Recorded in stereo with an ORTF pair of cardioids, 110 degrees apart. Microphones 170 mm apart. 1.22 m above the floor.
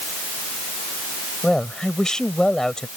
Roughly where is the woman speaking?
Ahead.